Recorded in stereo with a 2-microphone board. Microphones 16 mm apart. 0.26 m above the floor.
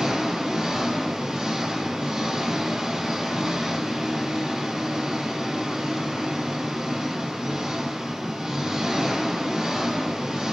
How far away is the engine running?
About 1.3 m.